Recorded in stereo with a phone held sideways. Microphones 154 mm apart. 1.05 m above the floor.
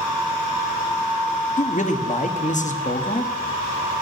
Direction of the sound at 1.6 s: 55° left (ahead or behind).